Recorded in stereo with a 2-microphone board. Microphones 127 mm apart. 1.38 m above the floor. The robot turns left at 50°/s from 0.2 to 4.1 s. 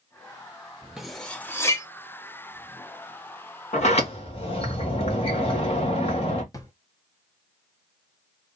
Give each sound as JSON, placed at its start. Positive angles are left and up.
{"t": 1.0, "sound": "cutlery clinking", "side_deg": -5, "distance_m": 0.8}
{"t": 3.7, "sound": "a sliding door", "side_deg": 65, "distance_m": 1.3}
{"t": 6.5, "sound": "a drawer", "side_deg": 25, "distance_m": 0.9}